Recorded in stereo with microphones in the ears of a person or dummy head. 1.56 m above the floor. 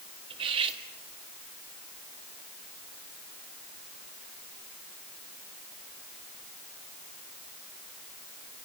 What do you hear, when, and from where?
0.3 s cutlery clinking: 35° right (ahead or behind), 1.8 m